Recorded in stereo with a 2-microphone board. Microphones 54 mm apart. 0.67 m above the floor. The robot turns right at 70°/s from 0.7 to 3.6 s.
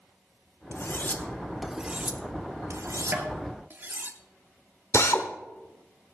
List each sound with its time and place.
0.7 s cutlery clinking: 55° left (ahead or behind), 0.7 m; by 4.1 s 40° right (ahead or behind), 0.7 m
3.1 s tapping: 40° right (ahead or behind), 1.7 m; by 3.3 s 55° right (ahead or behind), 1.7 m
4.9 s a drill: 60° left (ahead or behind), 0.9 m